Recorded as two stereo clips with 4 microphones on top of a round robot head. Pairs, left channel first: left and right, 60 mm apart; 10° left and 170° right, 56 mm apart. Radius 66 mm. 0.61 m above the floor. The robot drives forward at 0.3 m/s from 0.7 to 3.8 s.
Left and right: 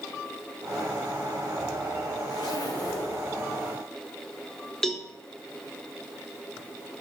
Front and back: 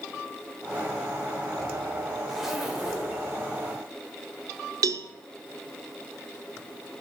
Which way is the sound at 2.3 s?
105° left.